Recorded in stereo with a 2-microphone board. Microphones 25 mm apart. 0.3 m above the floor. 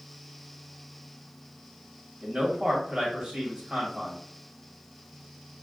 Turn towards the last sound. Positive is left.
turn(degrees=-30)  # may be behind; listen again after turning